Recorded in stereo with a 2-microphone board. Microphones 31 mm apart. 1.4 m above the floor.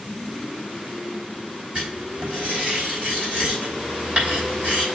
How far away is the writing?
About 4 m.